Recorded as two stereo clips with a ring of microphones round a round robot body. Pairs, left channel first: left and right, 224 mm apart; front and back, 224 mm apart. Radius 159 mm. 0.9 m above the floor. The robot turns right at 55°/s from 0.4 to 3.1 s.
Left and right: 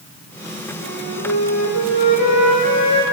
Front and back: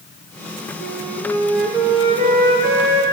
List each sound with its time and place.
0.8 s a flute: 45° left, 4.5 m; by 3.0 s 165° left, 4.5 m